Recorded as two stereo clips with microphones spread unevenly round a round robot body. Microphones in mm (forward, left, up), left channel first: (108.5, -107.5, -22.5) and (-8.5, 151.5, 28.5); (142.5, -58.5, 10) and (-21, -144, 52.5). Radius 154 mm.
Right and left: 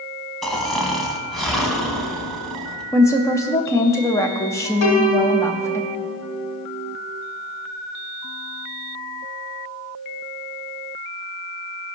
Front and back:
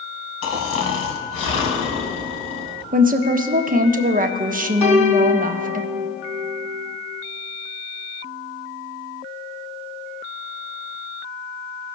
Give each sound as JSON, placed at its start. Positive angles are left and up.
{"t": 0.4, "sound": "snoring", "azimuth_deg": 30, "distance_m": 1.4}
{"t": 2.9, "sound": "a woman speaking", "azimuth_deg": -120, "distance_m": 0.6}
{"t": 4.8, "sound": "a piano", "azimuth_deg": -30, "distance_m": 1.5}